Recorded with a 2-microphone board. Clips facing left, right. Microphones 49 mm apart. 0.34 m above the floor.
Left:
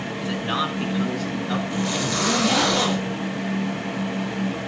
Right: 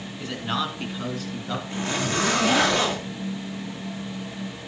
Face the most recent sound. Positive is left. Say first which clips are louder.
# left 2 dB
turn(degrees=-25)  # may be behind; listen again after turning